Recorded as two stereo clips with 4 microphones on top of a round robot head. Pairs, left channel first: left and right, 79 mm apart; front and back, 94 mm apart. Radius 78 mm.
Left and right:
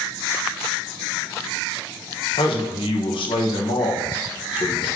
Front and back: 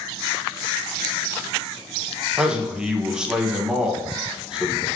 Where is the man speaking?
100° left, 1.7 m.